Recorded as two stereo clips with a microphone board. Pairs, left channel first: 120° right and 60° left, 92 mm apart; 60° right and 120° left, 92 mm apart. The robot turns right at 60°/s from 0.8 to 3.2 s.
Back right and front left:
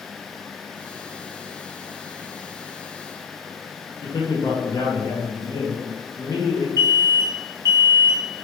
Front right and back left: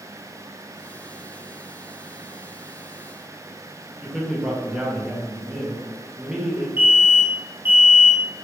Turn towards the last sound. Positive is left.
turn(degrees=70)